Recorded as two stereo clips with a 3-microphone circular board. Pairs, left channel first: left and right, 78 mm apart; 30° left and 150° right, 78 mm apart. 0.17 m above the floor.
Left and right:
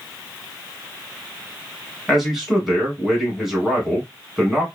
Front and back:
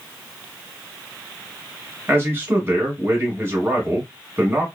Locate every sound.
2.1 s a man speaking: 175° right, 1.3 m